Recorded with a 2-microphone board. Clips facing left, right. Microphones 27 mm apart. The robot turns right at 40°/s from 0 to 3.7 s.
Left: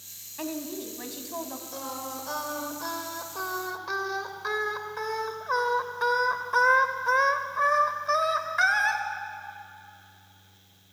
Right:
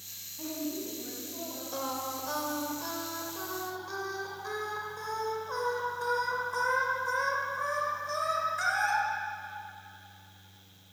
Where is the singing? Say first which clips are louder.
Right 2 dB; 5° right, 2 m; by 9.0 s 70° left, 2 m.